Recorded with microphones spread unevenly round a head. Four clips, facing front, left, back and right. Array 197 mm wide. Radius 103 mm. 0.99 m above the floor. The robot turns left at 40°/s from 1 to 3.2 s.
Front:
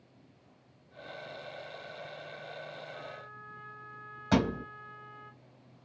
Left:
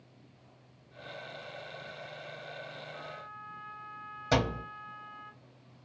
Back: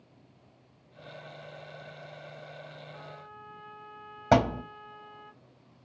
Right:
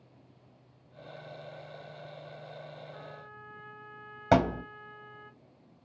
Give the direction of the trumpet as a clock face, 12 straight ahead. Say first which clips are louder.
Left 2 dB, front 1 dB; 4 o'clock.